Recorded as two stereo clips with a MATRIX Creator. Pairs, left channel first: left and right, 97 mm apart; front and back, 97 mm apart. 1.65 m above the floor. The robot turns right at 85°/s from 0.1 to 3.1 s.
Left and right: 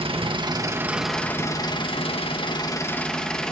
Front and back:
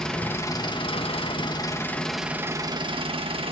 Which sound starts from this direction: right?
An engine running, at 0.0 s.